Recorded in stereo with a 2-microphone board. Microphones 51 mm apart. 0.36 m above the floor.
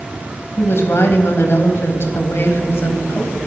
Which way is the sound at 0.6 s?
55° left (ahead or behind).